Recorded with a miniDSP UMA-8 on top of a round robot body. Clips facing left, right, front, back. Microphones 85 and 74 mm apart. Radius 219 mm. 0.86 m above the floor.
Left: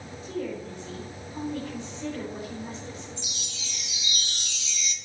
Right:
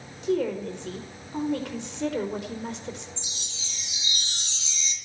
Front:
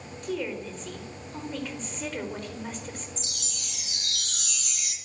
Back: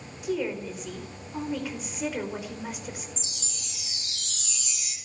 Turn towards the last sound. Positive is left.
turn(degrees=-30)